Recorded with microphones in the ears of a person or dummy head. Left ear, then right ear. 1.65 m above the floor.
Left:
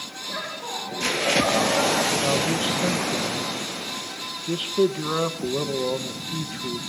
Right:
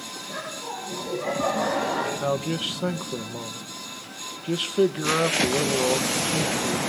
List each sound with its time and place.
0.3 s laughter: 10° left (ahead or behind), 8 m; by 2.1 s 15° left (ahead or behind), 10 m
2.2 s a man speaking: 15° right (ahead or behind), 1.3 m